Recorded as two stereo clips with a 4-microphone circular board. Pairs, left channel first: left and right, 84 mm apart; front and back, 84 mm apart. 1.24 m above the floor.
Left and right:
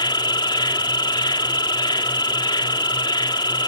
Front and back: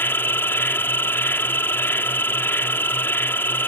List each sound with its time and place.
0.0 s an insect: 65° left